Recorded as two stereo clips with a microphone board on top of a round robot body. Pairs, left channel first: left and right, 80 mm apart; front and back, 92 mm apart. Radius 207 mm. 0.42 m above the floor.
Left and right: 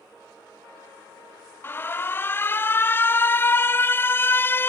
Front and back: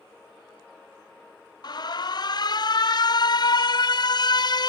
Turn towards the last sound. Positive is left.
turn(degrees=30)